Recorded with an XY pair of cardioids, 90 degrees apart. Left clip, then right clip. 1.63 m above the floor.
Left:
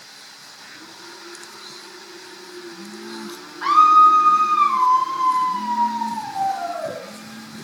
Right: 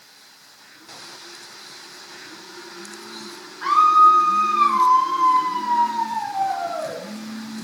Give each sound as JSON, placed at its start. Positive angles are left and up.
{"t": 3.6, "sound": "a scream", "azimuth_deg": 30, "distance_m": 1.8}